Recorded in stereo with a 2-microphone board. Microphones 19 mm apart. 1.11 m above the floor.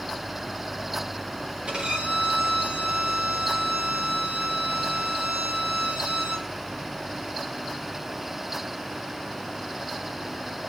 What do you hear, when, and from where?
1.7 s a violin: 70° right (ahead or behind), 8 m